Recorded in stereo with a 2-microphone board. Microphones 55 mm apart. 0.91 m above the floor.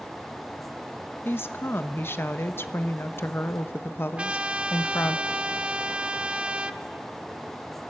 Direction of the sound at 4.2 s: 20° right (ahead or behind).